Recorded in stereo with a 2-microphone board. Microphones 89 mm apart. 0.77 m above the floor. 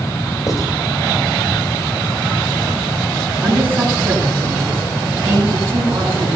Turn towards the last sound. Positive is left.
turn(degrees=-20)  # may be behind; listen again after turning